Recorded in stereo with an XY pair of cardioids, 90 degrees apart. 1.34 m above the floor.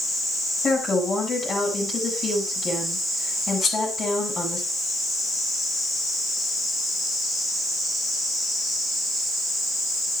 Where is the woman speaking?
50° left, 9.5 m.